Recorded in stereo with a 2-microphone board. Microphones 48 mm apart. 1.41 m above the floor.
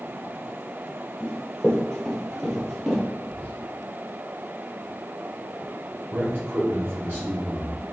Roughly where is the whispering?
Left.